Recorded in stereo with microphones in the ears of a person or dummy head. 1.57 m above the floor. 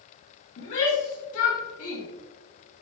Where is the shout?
60° left (ahead or behind), 2 m; by 2.0 s 80° left, 2.5 m.